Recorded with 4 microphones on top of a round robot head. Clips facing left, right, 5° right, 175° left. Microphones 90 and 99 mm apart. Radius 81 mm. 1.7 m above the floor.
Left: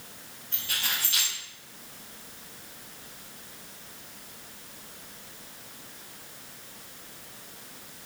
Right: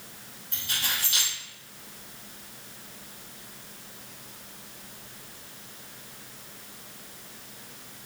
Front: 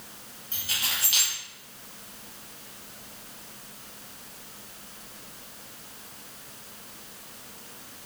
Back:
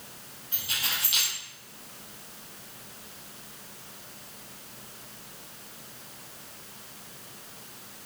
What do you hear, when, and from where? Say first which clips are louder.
0.5 s keys jangling: right 1 dB, even; 20° right, 0.8 m